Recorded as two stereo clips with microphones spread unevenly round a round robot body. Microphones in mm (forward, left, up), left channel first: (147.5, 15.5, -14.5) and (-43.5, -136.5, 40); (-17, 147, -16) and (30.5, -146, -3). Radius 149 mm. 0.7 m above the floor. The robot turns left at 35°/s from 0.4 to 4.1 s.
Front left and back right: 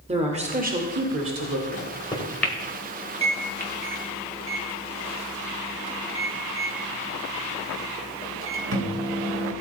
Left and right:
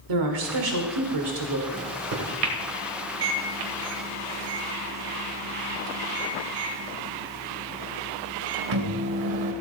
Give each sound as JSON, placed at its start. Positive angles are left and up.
{"t": 0.1, "sound": "a woman speaking", "azimuth_deg": -75, "distance_m": 1.9}
{"t": 1.7, "sound": "a microwave", "azimuth_deg": -20, "distance_m": 2.5}